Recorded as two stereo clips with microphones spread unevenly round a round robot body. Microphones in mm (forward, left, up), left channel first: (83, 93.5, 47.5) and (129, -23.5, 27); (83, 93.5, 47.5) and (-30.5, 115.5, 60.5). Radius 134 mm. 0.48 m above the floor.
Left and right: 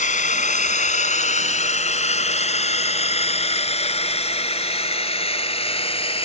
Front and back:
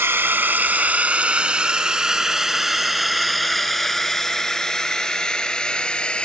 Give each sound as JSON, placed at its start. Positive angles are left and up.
{"t": 0.0, "sound": "a drone", "azimuth_deg": 100}